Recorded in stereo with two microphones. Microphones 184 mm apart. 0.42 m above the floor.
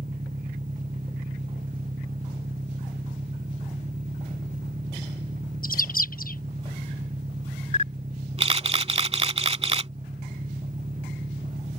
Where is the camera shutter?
35° right (ahead or behind).